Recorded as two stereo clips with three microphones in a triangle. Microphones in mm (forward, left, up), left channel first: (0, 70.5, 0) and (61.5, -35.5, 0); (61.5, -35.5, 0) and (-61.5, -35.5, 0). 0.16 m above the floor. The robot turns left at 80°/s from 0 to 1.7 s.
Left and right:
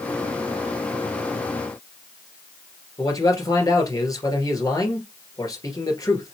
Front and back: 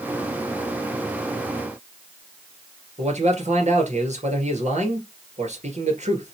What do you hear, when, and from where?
3.0 s a man speaking: straight behind, 2.5 m